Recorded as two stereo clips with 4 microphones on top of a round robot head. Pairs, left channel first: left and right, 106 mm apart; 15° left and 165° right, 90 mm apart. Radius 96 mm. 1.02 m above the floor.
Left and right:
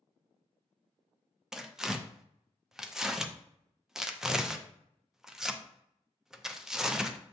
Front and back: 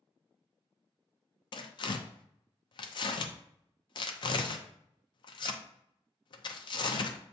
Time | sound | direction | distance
1.5 | tearing paper | 5° right | 0.5 m